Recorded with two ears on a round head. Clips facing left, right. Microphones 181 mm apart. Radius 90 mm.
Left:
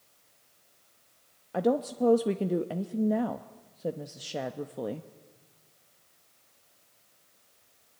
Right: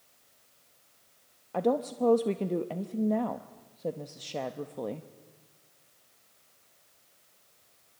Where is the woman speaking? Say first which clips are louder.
Left 1 dB; 5° left (ahead or behind), 0.7 m.